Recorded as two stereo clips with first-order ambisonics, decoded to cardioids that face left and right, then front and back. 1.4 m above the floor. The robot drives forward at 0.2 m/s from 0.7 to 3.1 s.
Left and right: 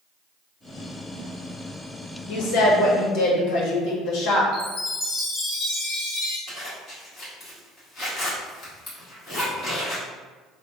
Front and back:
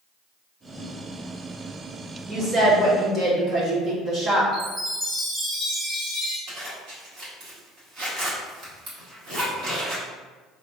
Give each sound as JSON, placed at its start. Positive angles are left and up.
{"t": 2.3, "sound": "a woman speaking", "azimuth_deg": 110, "distance_m": 1.2}
{"t": 4.5, "sound": "a chime", "azimuth_deg": 110, "distance_m": 1.5}
{"t": 6.5, "sound": "a zipper", "azimuth_deg": 145, "distance_m": 1.8}